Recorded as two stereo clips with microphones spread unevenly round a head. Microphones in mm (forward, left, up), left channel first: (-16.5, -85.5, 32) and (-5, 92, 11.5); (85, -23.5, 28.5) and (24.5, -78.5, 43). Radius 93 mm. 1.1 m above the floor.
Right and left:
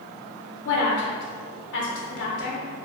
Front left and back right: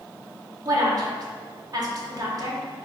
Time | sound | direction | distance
0.7 | a woman speaking | 95° right | 0.9 m